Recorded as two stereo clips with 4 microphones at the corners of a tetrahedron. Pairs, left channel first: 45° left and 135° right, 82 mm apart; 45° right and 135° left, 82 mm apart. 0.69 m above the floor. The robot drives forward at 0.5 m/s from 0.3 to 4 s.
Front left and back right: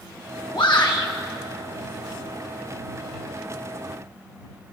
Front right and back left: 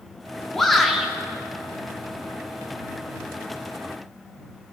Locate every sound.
0.5 s a shout: 40° left, 1.0 m; by 1.1 s 55° left, 0.8 m